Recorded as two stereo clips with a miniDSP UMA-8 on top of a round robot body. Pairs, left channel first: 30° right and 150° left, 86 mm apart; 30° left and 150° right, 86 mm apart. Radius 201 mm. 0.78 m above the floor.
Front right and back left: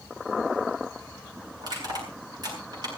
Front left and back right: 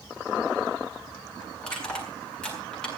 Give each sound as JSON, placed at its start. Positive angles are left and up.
{"t": 1.6, "sound": "crushing", "azimuth_deg": 110, "distance_m": 8.0}